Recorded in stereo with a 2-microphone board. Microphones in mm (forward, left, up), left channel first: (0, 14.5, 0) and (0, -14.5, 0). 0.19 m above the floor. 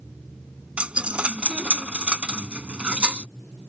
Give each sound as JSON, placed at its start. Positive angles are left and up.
{"t": 0.8, "sound": "a dropped coin", "side_deg": -50}